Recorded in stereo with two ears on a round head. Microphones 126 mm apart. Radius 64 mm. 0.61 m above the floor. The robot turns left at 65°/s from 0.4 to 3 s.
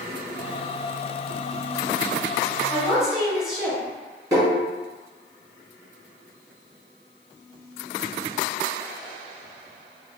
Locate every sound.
2.7 s a woman speaking: 15° right (ahead or behind), 1.2 m; by 3.8 s 5° right (ahead or behind), 1.2 m
4.3 s tapping: 25° right (ahead or behind), 1.5 m